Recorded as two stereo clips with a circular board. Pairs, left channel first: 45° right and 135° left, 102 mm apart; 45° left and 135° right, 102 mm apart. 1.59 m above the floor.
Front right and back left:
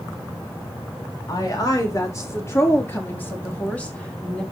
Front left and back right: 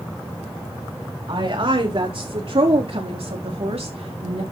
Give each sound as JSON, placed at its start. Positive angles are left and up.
{"t": 1.3, "sound": "a woman speaking", "azimuth_deg": -100, "distance_m": 4.0}